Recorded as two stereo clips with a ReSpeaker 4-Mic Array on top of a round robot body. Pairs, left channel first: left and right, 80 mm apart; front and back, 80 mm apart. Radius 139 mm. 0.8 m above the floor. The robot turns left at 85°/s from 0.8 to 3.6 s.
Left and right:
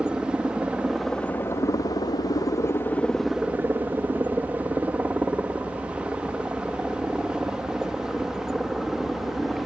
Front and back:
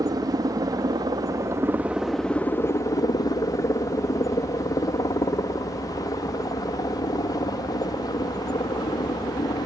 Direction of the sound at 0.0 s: 165° right.